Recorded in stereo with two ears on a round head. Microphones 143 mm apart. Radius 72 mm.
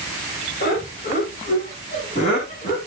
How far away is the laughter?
About 6.5 m.